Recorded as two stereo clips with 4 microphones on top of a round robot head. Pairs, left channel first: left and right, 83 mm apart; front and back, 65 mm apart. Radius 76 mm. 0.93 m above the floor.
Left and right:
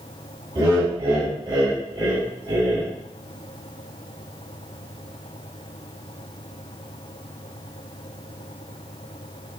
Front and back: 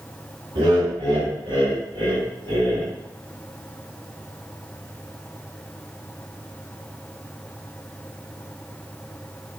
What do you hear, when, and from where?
0.6 s laughter: 145° right, 2.5 m